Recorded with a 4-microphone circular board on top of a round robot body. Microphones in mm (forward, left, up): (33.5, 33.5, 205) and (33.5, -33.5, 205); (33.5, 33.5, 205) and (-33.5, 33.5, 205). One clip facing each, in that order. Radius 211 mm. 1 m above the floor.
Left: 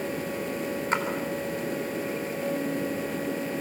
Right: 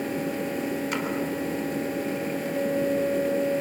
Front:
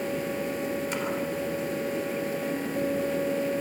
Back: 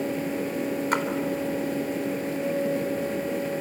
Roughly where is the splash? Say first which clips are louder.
Left 2 dB, back 6 dB; behind left.